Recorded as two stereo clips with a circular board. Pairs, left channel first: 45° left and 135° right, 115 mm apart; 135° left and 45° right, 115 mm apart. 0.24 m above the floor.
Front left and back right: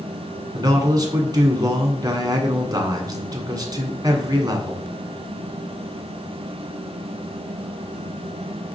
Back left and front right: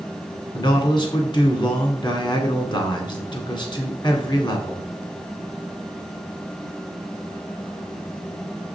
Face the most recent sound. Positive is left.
turn(degrees=175)